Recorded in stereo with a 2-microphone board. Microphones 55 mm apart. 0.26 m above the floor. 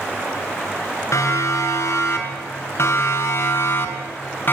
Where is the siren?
70° left (ahead or behind), 5 m; by 4.5 s 45° left (ahead or behind), 3.5 m.